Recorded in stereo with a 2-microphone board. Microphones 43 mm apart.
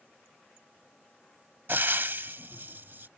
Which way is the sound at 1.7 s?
55° right (ahead or behind).